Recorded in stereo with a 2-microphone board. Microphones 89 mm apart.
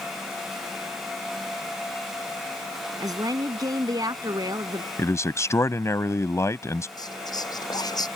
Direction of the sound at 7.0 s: 45° left (ahead or behind).